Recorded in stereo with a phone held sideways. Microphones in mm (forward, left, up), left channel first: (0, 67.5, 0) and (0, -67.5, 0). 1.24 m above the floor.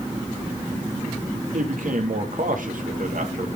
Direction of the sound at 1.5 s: 80° right.